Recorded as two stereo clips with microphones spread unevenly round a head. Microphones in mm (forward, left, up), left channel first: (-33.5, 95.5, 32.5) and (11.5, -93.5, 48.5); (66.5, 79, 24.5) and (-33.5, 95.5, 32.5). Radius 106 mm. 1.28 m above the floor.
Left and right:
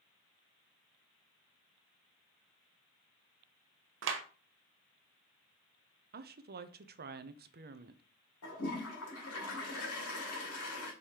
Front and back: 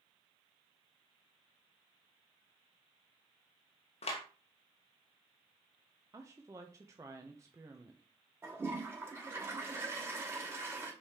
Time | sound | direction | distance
4.0 | a clap | 50° right | 1.0 m
6.1 | a woman speaking | 115° right | 0.7 m
8.4 | a toilet flushing | 105° left | 2.5 m